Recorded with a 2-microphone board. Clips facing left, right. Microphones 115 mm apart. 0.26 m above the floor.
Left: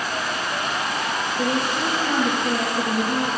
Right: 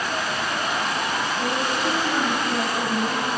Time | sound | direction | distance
1.4 | a woman speaking | 25° left (ahead or behind) | 7.5 m